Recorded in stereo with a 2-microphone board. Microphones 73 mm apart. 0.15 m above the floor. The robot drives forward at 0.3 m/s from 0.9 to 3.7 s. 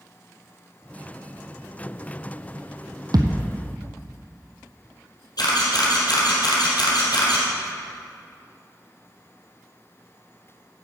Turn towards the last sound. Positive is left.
turn(degrees=70)  # may be behind; listen again after turning